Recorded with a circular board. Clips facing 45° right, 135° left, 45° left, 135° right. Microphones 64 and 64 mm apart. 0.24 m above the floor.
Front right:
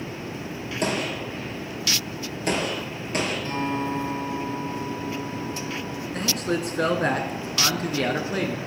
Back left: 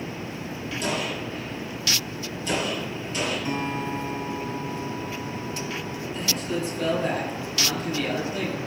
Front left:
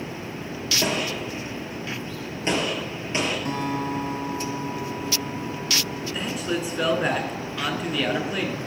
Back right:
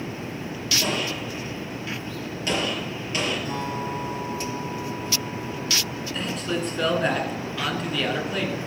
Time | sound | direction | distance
0.8 | a gunshot | 20° right | 5 m
3.5 | a guitar | 60° left | 5.5 m
6.1 | a man speaking | 40° right | 2.5 m